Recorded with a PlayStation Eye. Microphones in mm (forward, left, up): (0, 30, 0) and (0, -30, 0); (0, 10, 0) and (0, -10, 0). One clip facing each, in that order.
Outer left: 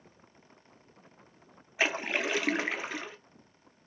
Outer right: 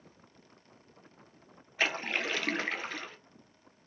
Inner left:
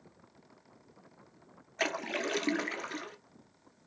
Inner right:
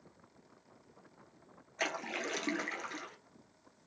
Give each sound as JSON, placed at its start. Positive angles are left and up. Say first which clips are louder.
{"t": 1.8, "sound": "a splash", "louder": "outer left 2 dB, inner left 4 dB", "side_deg": 10, "distance_m": 1.1}